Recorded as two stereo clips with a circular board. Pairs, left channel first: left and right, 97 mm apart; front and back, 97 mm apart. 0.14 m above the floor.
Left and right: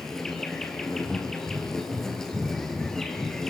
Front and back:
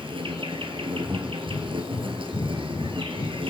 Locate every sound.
0.0 s an insect: 175° left, 3 m
1.0 s breathing: 5° left, 6.5 m